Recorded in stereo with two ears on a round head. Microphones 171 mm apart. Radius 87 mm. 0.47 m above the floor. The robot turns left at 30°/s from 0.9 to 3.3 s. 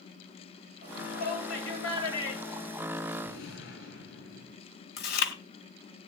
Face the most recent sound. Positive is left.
turn(degrees=50)  # may be behind; listen again after turning